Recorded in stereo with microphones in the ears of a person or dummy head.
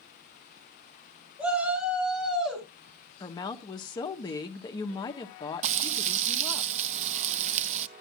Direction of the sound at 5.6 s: 45° right (ahead or behind).